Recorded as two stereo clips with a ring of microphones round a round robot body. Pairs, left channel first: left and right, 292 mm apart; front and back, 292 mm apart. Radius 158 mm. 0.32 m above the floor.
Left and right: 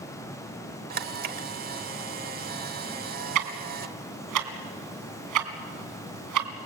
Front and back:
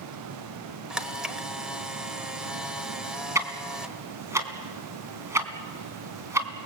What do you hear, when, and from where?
0.9 s a camera shutter: 95° right, 1.2 m
3.4 s ticking: 100° right, 2.5 m